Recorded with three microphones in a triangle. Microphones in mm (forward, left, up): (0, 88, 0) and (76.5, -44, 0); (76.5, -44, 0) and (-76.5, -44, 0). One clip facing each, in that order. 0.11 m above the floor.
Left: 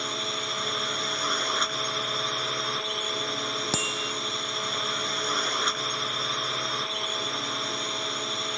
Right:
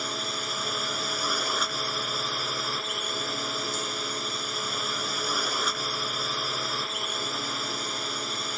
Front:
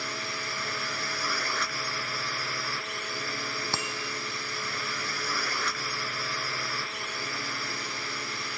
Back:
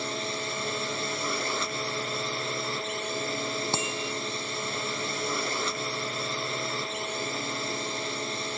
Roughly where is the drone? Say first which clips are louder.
Left 1 dB, back 5 dB; behind right.